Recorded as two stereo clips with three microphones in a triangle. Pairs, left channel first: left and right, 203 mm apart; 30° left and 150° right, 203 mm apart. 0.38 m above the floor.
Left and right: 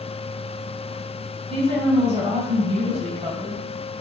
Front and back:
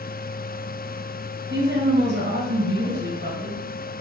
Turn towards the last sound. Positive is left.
turn(degrees=-145)